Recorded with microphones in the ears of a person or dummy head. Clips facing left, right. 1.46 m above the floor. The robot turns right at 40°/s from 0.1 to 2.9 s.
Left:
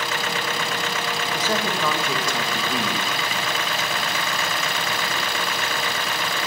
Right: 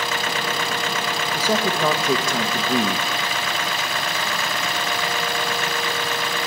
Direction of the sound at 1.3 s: Straight behind.